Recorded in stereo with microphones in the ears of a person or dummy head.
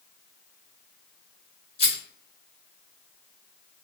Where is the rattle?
35° left (ahead or behind), 1.2 m.